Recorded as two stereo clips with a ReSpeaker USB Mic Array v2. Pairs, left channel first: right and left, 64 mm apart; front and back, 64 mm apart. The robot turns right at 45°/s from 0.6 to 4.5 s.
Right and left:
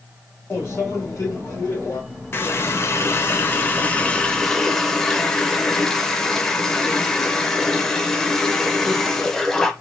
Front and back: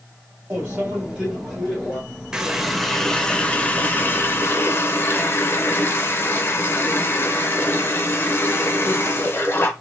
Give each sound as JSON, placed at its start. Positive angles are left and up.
{"t": 0.5, "sound": "a microwave", "azimuth_deg": -135, "distance_m": 2.0}
{"t": 2.3, "sound": "a running tap", "azimuth_deg": -110, "distance_m": 0.6}